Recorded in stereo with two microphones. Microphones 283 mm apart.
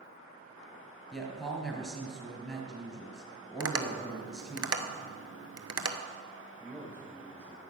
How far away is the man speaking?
About 5 m.